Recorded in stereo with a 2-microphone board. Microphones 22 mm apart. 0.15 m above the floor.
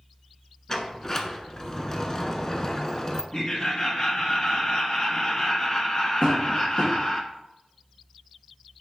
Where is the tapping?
80° left, 3 m.